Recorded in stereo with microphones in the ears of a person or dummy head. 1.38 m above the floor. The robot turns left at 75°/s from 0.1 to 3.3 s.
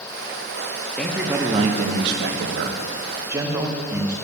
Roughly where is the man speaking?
Ahead.